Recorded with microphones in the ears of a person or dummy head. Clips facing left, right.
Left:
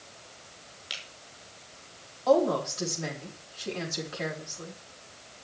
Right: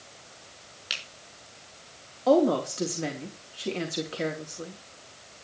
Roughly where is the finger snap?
Right.